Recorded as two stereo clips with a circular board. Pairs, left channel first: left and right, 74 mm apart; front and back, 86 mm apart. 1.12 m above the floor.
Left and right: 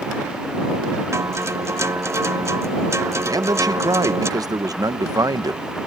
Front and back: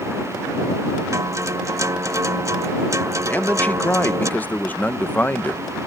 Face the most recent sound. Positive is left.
turn(degrees=-65)